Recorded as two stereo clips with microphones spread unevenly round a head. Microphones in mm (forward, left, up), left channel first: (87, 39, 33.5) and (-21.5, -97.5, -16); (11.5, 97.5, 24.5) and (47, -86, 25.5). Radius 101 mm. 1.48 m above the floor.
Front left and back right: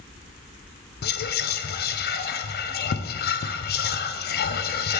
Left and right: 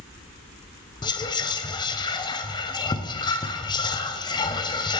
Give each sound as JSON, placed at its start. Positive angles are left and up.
{"t": 1.0, "sound": "whispering", "azimuth_deg": 35, "distance_m": 0.6}